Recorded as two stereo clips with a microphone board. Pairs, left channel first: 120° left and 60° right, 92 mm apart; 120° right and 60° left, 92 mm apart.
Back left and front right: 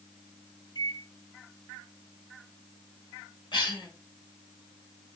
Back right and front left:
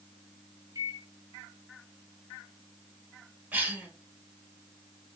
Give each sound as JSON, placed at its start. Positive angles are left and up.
{"t": 0.8, "sound": "a microwave", "azimuth_deg": 100, "distance_m": 1.3}
{"t": 3.5, "sound": "a cough", "azimuth_deg": 130, "distance_m": 2.5}